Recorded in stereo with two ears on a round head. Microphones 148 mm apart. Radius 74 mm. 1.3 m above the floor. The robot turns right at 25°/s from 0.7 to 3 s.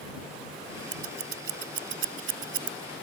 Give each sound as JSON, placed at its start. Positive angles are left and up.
{"t": 0.9, "sound": "scissors", "side_deg": -60}